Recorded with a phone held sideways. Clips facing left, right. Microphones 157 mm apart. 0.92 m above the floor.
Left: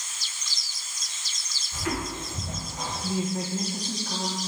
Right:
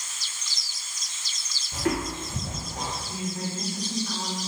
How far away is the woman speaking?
About 1.3 m.